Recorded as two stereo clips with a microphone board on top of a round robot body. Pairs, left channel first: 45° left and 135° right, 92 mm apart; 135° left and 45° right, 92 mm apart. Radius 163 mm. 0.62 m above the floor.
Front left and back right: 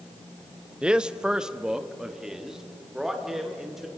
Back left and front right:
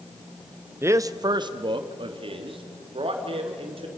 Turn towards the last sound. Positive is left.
turn(degrees=-50)